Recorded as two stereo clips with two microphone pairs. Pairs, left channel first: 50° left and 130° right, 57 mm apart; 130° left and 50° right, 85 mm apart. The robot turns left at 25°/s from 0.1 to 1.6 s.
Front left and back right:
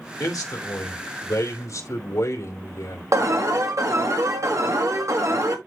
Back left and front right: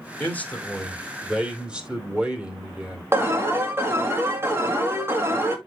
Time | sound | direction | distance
0.2 | a man speaking | 60° left | 2.5 m
3.1 | an alarm | 110° right | 2 m